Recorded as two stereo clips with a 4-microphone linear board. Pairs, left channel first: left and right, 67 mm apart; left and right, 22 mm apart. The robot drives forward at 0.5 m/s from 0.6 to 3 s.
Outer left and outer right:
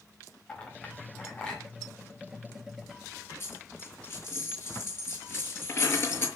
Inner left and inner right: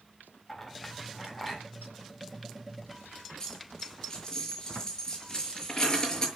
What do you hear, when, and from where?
0.5 s a clink: 15° left (ahead or behind), 6 m
3.4 s a dropped coin: 35° left (ahead or behind), 7 m